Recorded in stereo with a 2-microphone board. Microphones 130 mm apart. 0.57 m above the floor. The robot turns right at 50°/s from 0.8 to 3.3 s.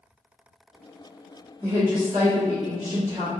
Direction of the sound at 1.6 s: 155° right.